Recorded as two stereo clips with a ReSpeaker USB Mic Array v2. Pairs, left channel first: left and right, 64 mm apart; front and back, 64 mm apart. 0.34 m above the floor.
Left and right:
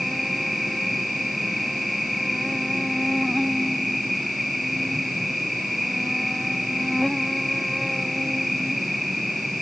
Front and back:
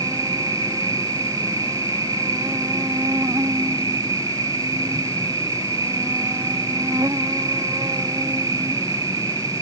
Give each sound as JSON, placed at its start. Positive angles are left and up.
{"t": 0.0, "sound": "an insect", "azimuth_deg": 180}